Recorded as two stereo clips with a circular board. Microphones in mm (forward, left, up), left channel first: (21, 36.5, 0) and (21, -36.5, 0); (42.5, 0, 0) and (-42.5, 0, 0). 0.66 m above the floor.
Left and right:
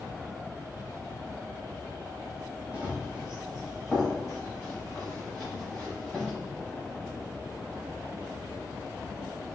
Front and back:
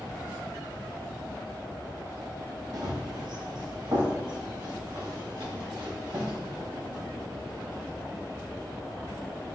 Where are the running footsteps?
160° right, 1.2 m; by 6.3 s straight behind, 4 m.